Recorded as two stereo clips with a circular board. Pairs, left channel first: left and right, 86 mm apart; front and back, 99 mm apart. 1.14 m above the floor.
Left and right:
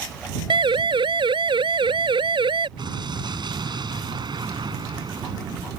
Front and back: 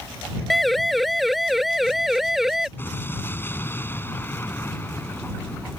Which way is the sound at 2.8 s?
65° right.